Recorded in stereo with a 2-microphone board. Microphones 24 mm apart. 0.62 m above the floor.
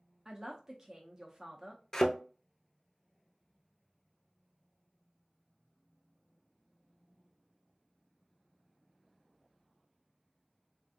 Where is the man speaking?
25° right (ahead or behind), 0.6 m.